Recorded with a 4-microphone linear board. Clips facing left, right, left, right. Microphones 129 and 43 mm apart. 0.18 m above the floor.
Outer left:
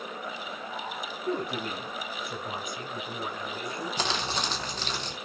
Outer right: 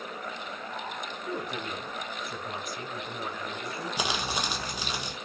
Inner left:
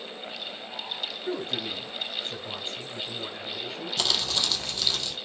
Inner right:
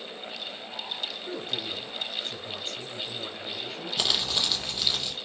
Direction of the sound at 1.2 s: 35° left (ahead or behind).